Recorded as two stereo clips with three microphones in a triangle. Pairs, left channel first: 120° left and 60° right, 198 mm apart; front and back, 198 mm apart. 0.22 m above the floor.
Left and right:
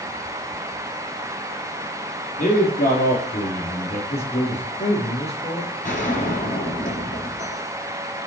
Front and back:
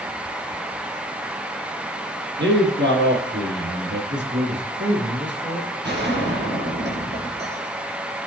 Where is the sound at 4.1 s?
175° left, 3.5 m.